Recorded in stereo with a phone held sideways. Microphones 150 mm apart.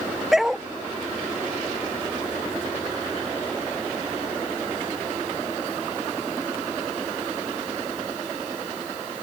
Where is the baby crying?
No baby crying in this recording.